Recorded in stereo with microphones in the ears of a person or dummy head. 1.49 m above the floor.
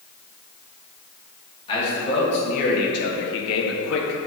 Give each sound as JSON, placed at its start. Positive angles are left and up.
{"t": 1.7, "sound": "a man speaking", "side_deg": 30, "distance_m": 2.5}